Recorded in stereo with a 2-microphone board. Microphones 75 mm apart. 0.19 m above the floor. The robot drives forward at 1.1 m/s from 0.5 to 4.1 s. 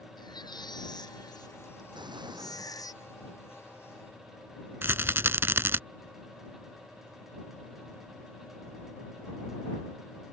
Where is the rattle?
30° right (ahead or behind).